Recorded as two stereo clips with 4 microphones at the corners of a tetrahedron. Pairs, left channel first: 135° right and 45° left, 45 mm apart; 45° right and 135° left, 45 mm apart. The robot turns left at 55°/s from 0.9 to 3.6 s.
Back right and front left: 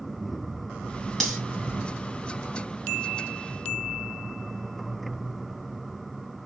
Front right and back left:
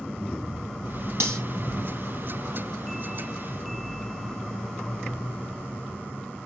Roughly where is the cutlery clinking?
Behind left.